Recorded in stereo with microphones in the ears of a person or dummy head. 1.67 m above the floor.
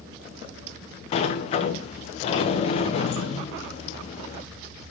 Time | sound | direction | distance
1.1 | a sliding door | 45° left (ahead or behind) | 1.0 m